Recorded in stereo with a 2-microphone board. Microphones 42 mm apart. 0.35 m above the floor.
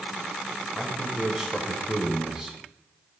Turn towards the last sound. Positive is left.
turn(degrees=-15)  # may be behind; listen again after turning